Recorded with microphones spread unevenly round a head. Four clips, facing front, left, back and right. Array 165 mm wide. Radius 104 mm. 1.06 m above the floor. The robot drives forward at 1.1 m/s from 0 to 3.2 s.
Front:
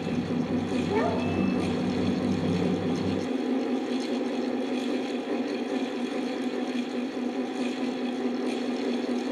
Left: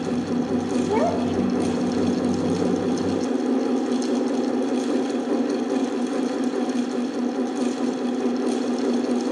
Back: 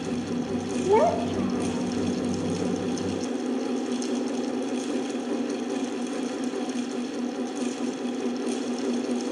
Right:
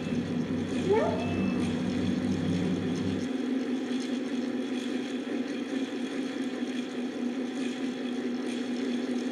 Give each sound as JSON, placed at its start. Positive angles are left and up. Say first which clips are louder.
{"t": 0.8, "sound": "a child speaking", "louder": "left 1 dB, back 9 dB", "azimuth_deg": -170, "distance_m": 3.0}